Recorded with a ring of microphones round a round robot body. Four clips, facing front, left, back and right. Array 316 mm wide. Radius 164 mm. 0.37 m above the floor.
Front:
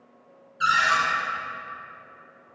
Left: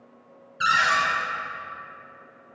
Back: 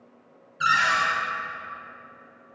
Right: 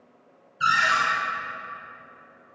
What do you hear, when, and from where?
0.6 s a cupboard door: 90° left, 0.7 m